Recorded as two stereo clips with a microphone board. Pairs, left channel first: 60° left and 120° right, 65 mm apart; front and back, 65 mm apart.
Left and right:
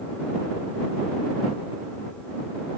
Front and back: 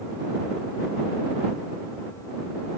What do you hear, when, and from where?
Only background noise.